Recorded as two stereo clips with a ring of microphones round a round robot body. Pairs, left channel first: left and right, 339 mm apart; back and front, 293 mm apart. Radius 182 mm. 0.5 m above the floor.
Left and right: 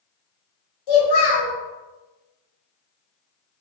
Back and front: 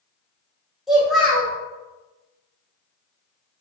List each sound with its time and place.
0.9 s a child speaking: 90° left, 1.7 m